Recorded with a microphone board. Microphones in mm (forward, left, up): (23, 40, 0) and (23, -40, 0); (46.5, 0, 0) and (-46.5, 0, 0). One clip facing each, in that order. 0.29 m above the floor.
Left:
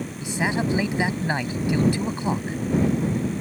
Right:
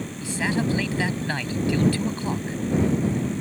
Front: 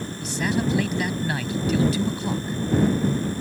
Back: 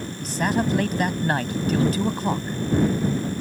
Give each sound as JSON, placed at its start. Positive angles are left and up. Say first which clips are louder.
{"t": 0.2, "sound": "a man speaking", "louder": "even, back 2 dB", "azimuth_deg": 155}